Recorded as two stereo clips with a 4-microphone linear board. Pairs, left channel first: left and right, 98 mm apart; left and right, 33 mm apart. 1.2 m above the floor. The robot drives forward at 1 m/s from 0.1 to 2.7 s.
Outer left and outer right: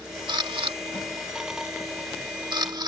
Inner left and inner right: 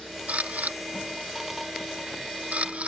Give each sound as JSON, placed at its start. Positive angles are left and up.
{"t": 0.3, "sound": "a camera shutter", "side_deg": -55}